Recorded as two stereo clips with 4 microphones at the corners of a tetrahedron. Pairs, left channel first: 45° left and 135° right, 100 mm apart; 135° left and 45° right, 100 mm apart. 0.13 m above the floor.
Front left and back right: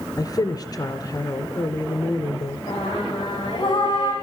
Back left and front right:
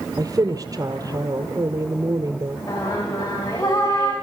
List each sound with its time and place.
0.2 s a woman speaking: straight ahead, 1.7 m
2.7 s singing: 90° left, 7.5 m